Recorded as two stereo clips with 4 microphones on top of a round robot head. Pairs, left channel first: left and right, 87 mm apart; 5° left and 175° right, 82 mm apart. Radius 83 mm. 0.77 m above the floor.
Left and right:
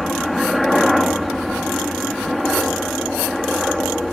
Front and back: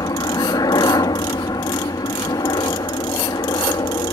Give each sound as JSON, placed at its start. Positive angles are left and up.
{"t": 0.0, "sound": "a helicopter", "azimuth_deg": 0}